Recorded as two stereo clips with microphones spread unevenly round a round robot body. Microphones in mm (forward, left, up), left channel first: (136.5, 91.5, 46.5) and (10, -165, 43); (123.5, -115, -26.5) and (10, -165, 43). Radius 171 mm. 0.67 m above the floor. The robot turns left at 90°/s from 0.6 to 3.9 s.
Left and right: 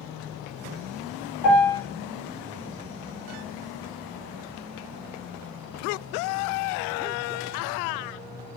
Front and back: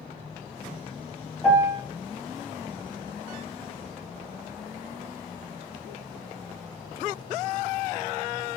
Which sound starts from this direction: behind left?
A piano, at 1.4 s.